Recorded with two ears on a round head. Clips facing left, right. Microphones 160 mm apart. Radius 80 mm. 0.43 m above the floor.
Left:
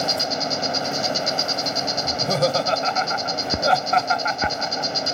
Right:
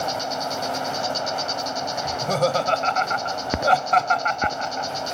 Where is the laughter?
5° left (ahead or behind).